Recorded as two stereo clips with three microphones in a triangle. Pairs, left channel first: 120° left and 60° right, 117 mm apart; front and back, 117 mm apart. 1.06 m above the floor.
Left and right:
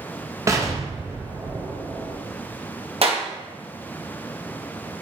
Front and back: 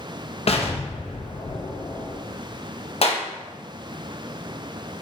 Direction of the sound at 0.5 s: Straight ahead.